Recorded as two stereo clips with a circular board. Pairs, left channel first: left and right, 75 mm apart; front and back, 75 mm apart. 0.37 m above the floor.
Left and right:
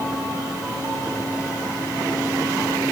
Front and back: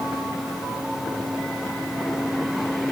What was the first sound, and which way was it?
Only background noise.